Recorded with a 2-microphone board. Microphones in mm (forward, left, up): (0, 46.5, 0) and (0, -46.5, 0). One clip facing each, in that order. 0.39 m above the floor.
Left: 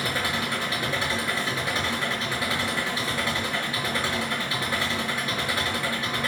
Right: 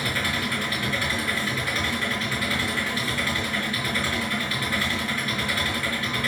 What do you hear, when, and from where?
0.0 s an engine running: 25° left (ahead or behind), 5.5 m